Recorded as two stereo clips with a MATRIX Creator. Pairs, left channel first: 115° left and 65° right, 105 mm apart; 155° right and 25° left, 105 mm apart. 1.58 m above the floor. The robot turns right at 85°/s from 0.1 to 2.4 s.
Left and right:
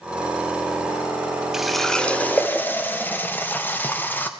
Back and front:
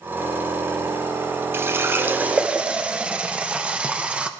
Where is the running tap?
10° left, 0.5 m; by 4.3 s 85° left, 0.5 m.